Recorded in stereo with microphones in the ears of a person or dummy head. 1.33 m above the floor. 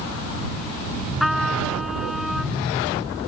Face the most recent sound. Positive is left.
turn(degrees=0)  # may be behind; listen again after turning